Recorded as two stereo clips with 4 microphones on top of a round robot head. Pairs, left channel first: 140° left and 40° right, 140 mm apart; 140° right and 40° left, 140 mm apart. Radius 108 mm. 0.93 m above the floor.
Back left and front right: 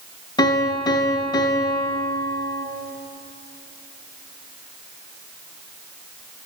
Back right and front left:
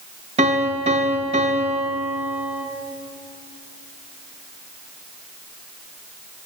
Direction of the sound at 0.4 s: 80° left.